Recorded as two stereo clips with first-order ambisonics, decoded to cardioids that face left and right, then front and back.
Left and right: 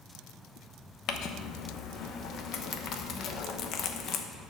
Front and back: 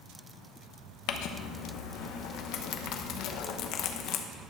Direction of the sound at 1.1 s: 40° left.